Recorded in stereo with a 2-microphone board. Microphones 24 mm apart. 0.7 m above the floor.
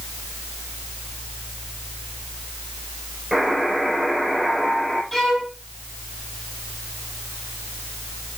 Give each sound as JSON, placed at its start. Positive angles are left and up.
{"t": 3.3, "sound": "a buzzer", "side_deg": -10, "distance_m": 7.5}
{"t": 5.1, "sound": "a violin", "side_deg": 5, "distance_m": 6.0}